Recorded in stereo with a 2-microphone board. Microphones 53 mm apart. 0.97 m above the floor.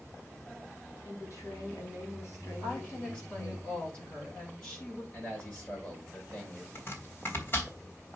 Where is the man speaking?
25° left (ahead or behind), 5.5 m.